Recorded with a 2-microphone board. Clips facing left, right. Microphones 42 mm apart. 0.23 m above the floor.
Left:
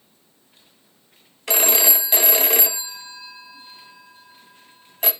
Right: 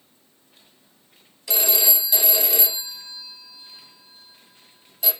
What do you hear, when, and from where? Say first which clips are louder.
1.5 s a phone ringing: left 4 dB; 50° left (ahead or behind), 0.9 m